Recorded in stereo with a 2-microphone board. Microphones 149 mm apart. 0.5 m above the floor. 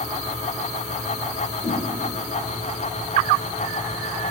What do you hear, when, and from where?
1.6 s a whoosh: 35° left (ahead or behind), 1.7 m